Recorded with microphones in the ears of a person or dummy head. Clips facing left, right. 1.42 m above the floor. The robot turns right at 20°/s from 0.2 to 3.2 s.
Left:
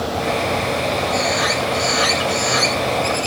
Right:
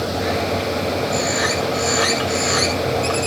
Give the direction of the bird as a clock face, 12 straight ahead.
6 o'clock.